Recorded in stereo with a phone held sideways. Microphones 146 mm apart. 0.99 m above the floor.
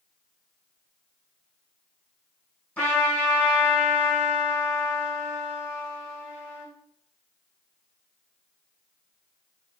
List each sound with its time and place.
2.8 s a trumpet: 10° left (ahead or behind), 1.3 m